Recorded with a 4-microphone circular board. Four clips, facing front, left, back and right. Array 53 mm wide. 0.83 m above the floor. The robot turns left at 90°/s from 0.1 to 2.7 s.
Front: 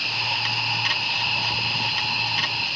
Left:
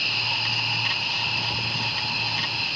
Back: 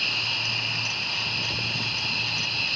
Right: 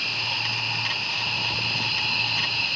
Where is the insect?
115° left, 6 m; by 2.8 s 115° right, 6 m.